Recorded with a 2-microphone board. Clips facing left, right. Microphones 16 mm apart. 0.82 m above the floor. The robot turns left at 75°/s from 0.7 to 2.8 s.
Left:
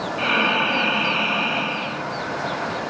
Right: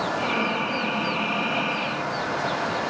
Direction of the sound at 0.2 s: 85° left.